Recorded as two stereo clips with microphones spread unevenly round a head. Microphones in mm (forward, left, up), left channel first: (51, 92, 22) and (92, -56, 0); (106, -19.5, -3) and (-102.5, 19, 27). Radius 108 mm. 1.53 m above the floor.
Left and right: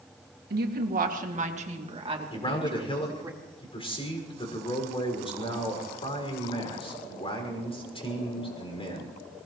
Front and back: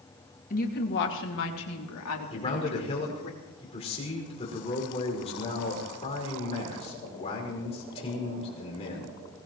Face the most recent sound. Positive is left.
turn(degrees=50)